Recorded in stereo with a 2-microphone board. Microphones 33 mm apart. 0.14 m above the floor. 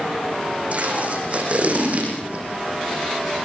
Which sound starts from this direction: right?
Tape being pulled, at 0.7 s.